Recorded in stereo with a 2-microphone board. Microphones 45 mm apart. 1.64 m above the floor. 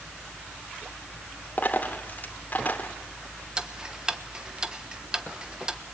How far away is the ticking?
About 1.1 m.